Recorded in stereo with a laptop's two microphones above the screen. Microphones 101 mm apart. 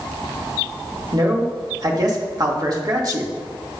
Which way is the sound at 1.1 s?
45° right (ahead or behind).